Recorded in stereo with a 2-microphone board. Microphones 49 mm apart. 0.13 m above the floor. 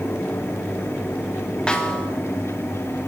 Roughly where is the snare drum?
Centre.